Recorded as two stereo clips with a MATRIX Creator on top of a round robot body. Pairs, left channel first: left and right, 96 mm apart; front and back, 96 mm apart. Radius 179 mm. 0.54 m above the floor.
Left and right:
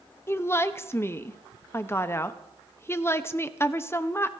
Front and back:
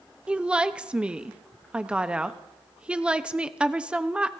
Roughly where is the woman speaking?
Behind left.